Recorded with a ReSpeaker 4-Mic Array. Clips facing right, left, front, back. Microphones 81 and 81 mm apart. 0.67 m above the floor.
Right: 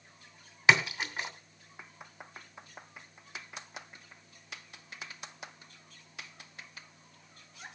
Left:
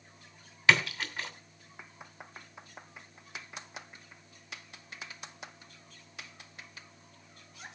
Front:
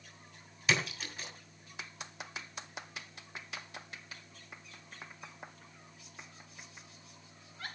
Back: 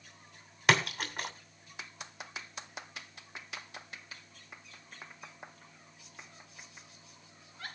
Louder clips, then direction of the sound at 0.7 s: Right 1 dB, back 5 dB; 155° right.